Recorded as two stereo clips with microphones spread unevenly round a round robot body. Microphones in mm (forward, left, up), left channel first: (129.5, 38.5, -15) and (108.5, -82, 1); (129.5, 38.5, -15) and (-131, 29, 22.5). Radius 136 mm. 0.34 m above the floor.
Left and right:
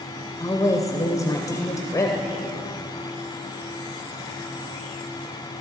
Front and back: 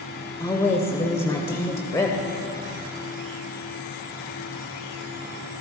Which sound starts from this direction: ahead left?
A woman speaking, at 0.4 s.